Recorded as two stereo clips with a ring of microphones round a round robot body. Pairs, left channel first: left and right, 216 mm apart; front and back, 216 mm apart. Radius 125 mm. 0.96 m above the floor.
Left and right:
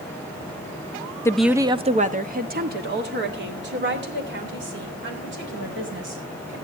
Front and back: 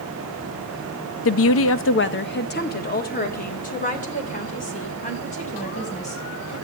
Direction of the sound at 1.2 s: 15° left.